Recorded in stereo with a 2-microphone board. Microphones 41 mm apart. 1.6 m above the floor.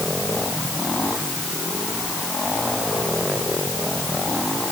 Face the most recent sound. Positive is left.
No sound to turn to.